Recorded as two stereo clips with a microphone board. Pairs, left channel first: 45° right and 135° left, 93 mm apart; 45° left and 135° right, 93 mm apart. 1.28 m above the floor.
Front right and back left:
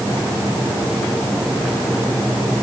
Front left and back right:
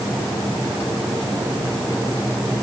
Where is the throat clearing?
I don't hear throat clearing.